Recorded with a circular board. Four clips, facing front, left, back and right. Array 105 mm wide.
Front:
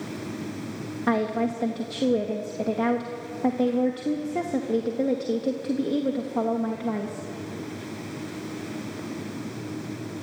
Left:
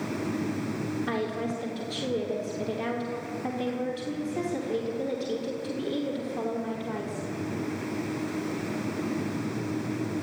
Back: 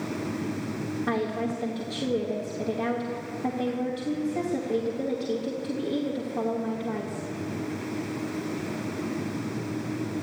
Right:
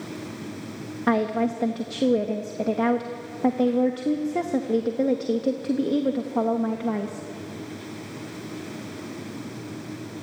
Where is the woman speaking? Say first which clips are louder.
Right 13 dB, front 6 dB; 65° right, 1.3 m.